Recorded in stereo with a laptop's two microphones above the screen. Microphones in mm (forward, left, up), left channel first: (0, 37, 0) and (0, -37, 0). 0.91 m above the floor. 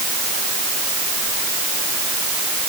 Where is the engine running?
No engine running in this recording.